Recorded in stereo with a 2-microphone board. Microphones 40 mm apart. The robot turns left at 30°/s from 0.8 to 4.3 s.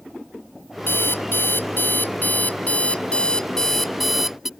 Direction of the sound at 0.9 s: 95° left.